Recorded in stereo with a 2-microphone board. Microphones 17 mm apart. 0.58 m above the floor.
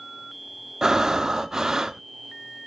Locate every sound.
0.8 s breathing: 40° right (ahead or behind), 0.6 m